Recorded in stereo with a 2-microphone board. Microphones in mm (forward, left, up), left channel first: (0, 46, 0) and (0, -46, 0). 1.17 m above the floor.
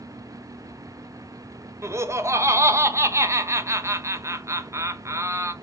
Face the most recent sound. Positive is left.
turn(degrees=-30)  # may be behind; listen again after turning